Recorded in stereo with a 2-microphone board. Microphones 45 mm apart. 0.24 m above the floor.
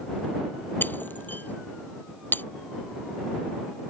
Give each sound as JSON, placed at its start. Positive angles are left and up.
{"t": 0.8, "sound": "breaking glass", "side_deg": 45}